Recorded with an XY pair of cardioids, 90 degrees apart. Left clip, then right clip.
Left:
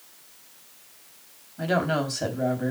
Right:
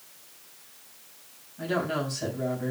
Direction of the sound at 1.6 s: 60° left.